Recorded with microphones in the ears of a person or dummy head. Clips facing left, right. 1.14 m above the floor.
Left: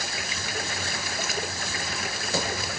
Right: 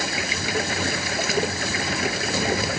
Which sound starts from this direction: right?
Running water, at 0.0 s.